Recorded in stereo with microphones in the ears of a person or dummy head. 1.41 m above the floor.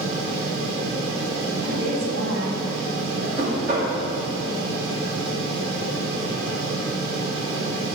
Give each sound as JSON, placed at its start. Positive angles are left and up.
{"t": 0.0, "sound": "a fan", "side_deg": -65, "distance_m": 2.0}
{"t": 1.6, "sound": "a woman speaking", "side_deg": -80, "distance_m": 2.0}
{"t": 3.4, "sound": "knocking", "side_deg": -50, "distance_m": 2.5}